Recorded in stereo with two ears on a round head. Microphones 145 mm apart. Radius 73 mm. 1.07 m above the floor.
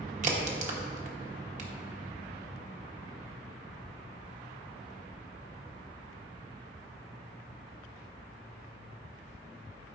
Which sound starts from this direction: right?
A crack, at 0.2 s.